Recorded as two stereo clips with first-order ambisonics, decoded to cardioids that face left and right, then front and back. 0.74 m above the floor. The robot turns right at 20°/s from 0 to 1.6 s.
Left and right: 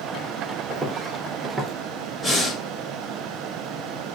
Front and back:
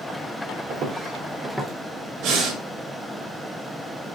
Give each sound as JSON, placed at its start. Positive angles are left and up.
{"t": 0.7, "sound": "footsteps", "azimuth_deg": -150, "distance_m": 1.0}
{"t": 2.2, "sound": "breathing", "azimuth_deg": 180, "distance_m": 1.2}